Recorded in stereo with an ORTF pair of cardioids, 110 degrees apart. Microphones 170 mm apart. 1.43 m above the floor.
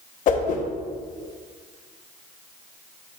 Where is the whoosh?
50° left, 0.9 m.